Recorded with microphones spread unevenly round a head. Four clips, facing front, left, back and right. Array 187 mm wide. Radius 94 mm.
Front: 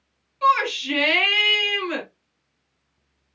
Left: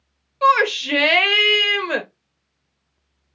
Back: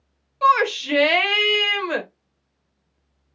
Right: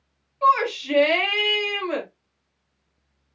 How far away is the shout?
About 0.8 m.